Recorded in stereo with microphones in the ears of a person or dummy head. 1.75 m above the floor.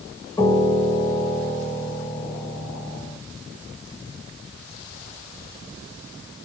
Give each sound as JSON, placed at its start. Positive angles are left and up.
{"t": 0.4, "sound": "a piano", "side_deg": 15, "distance_m": 1.4}